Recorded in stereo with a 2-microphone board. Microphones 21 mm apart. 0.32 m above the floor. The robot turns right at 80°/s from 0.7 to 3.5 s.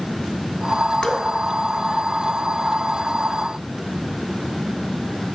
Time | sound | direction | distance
1.0 | dripping | 50° left (ahead or behind) | 0.6 m